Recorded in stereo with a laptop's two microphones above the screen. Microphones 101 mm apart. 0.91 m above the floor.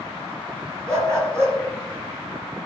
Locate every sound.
0.9 s a dog barking: 25° right (ahead or behind), 3 m